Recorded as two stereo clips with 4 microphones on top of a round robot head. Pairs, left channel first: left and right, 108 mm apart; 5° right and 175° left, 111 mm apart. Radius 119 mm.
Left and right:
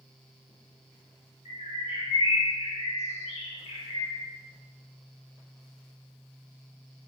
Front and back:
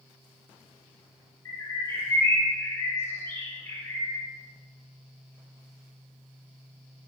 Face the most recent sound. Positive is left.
turn(degrees=65)